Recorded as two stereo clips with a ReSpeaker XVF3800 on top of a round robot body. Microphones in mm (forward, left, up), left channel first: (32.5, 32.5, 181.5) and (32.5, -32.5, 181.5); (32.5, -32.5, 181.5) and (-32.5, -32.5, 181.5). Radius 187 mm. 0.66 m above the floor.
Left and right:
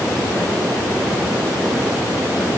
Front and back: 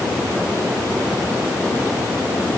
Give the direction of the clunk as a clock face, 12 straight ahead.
No clunk in this recording.